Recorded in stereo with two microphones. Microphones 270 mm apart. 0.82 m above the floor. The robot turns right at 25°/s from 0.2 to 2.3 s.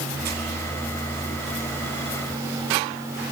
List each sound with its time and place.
Only background noise.